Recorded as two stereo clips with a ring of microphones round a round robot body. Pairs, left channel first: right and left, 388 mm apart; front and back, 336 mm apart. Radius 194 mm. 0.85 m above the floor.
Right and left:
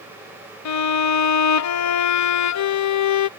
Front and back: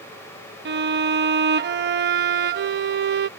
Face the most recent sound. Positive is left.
turn(degrees=-125)